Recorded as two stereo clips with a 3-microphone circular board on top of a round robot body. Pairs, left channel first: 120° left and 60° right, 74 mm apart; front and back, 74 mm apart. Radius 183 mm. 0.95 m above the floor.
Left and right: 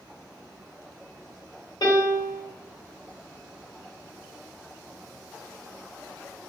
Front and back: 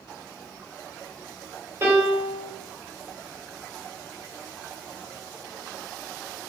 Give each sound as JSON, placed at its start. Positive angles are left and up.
{"t": 1.8, "sound": "a piano", "azimuth_deg": 130, "distance_m": 1.9}